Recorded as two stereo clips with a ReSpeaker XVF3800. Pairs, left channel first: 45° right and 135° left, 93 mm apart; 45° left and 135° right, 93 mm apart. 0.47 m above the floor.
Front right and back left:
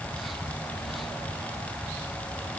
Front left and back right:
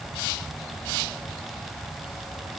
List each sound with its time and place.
Only background noise.